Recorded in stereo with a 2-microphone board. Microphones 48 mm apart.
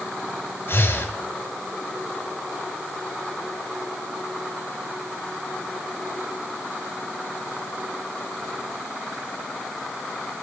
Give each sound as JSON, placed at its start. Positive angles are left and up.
{"t": 0.7, "sound": "breathing", "side_deg": 60, "distance_m": 2.0}